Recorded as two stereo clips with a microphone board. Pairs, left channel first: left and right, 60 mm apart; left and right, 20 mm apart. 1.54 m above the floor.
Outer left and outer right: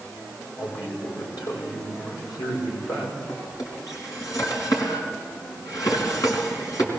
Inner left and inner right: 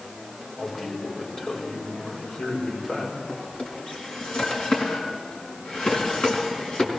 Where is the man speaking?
85° left, 6 m.